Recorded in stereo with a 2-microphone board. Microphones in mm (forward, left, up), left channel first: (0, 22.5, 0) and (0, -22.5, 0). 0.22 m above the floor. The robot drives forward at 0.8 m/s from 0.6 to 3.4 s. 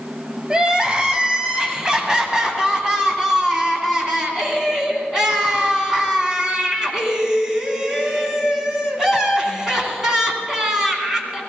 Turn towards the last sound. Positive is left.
turn(degrees=-10)  # may be behind; listen again after turning